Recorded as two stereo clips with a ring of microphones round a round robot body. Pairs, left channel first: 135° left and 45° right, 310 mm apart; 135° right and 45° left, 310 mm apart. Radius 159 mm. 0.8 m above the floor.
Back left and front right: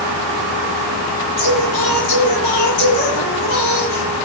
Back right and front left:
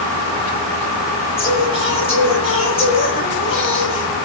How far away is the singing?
About 10 m.